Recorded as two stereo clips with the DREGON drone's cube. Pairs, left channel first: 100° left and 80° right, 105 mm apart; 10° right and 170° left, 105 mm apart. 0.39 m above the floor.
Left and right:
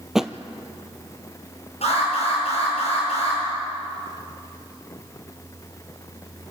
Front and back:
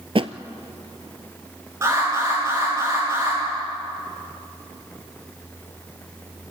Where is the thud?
165° right, 0.8 m.